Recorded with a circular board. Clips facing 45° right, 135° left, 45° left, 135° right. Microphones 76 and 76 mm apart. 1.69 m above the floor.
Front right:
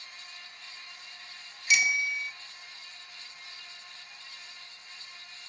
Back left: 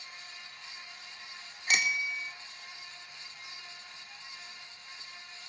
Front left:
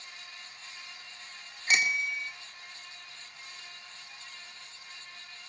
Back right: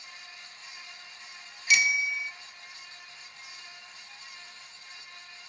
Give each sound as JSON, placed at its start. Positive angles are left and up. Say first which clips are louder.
{"t": 1.7, "sound": "a bicycle bell", "louder": "front right 3 dB, back right 2 dB", "azimuth_deg": 95, "distance_m": 3.0}